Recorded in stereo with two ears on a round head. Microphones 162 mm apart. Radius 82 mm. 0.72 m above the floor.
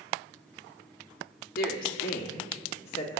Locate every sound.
1.6 s a woman speaking: 55° left (ahead or behind), 1.5 m; by 3.2 s 30° left (ahead or behind), 2 m